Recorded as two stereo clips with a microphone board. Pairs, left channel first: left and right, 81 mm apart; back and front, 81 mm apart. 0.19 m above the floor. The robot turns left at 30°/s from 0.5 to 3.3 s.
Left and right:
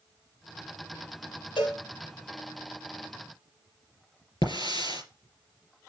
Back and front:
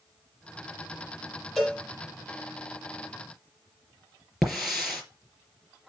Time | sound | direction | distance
1.6 | a cowbell | 90° left | 5 m
4.4 | a hiss | 90° left | 4 m